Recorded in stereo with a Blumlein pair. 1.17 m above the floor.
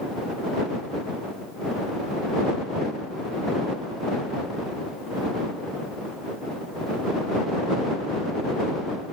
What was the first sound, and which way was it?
Only background noise.